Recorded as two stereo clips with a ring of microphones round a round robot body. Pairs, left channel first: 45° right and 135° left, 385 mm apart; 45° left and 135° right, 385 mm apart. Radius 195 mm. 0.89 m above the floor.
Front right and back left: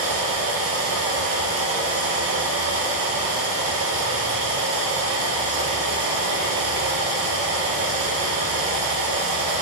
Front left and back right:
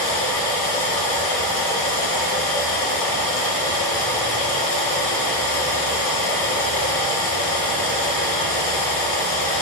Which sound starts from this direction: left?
Running water, at 0.0 s.